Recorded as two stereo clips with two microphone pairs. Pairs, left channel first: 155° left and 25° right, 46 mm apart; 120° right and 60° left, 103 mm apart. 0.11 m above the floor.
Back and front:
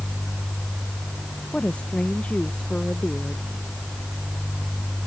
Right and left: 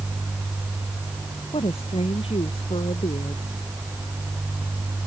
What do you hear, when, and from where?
1.5 s a woman speaking: 140° right